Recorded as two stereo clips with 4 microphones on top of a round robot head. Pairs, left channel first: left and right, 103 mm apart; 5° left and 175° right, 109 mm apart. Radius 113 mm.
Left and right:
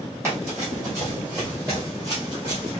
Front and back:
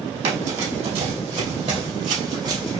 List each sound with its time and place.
0.2 s running footsteps: 165° right, 2.5 m; by 2.8 s 130° right, 1.6 m